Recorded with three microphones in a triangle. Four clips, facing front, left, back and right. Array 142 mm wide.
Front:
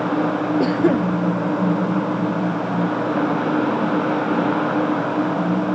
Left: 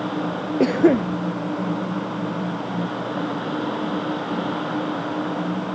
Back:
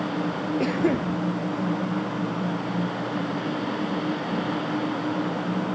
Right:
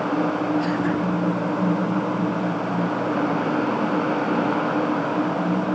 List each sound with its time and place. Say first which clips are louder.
0.6 s a cough: left 6 dB, front 5 dB; 65° left